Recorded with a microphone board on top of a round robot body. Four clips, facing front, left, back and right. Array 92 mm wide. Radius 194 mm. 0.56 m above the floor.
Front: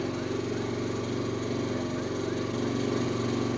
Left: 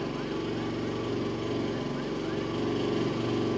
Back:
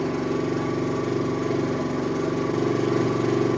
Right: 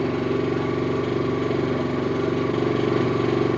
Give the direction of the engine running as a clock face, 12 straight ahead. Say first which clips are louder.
Right 9 dB, back 6 dB; 4 o'clock.